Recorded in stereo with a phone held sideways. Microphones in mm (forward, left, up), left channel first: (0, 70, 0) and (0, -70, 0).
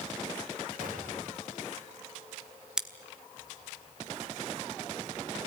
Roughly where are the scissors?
Centre.